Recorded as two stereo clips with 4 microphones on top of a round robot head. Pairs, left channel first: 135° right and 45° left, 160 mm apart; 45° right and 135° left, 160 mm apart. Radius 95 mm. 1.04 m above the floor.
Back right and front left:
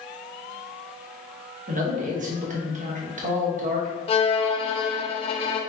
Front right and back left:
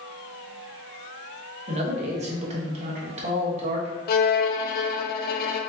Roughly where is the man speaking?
Left.